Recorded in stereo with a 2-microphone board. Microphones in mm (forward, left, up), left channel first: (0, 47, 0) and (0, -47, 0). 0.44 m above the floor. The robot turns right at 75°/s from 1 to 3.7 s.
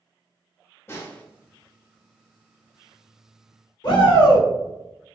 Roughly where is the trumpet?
I don't hear a trumpet.